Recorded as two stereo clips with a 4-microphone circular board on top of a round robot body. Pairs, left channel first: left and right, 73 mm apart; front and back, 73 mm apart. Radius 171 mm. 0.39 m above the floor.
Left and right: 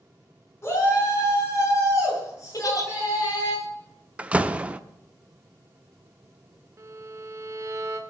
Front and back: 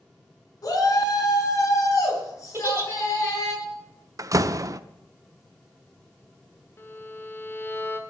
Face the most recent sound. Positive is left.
turn(degrees=-50)